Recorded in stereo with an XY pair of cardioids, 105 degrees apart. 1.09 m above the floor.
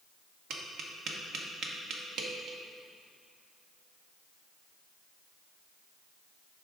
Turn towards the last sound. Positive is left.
turn(degrees=-65)